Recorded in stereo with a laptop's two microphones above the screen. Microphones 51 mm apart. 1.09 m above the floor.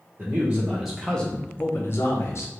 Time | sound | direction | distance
0.2 | a man speaking | 30° right (ahead or behind) | 0.9 m